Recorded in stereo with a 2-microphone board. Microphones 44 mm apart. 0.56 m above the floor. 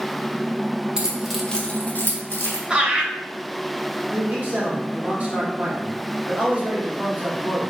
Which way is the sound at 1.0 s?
20° right (ahead or behind).